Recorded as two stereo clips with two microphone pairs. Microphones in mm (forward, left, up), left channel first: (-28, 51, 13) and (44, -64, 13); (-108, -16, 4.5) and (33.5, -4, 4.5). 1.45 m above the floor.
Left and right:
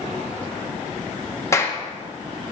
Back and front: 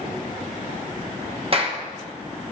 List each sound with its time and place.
1.5 s a clap: 55° left, 1.1 m